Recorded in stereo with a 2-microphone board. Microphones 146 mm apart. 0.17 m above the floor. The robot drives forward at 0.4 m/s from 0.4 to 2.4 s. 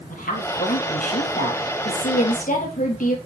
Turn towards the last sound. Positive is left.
turn(degrees=65)  # may be behind; listen again after turning